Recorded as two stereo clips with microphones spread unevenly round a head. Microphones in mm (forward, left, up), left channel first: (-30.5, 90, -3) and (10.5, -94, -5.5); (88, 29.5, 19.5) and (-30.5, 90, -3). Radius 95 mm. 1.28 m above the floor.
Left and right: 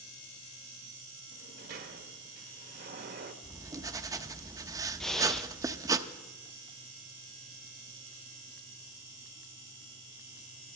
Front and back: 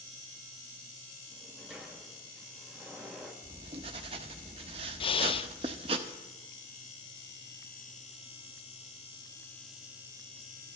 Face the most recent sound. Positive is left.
turn(degrees=15)